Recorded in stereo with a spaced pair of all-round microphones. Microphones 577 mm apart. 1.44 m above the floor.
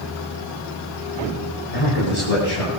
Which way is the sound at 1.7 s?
90° left.